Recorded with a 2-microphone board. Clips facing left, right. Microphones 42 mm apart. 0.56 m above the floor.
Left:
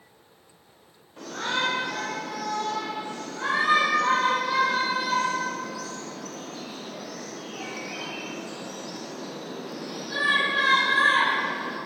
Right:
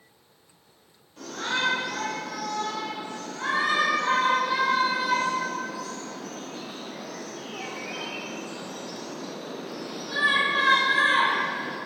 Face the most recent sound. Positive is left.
turn(degrees=-30)  # may be behind; listen again after turning